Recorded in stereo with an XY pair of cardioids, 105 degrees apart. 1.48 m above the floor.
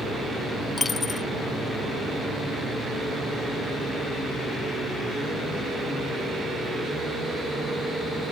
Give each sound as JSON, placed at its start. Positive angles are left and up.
{"t": 0.8, "sound": "a dropped coin", "azimuth_deg": 35}